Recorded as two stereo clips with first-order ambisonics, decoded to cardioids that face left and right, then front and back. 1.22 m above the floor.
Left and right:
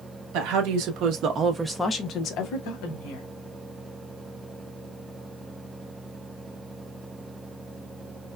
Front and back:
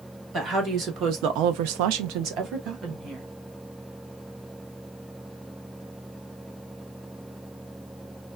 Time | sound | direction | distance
0.3 | a woman speaking | 115° right | 1.2 m